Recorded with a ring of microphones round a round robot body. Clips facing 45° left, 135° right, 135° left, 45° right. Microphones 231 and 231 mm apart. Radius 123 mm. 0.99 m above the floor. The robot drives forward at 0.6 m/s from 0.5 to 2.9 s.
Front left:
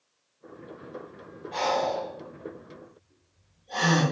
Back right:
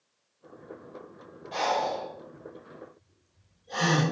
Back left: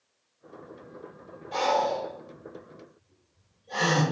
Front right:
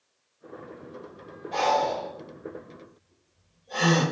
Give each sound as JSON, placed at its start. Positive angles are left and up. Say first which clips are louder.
{"t": 1.5, "sound": "breathing", "louder": "front left 3 dB, even", "azimuth_deg": -165, "distance_m": 5.0}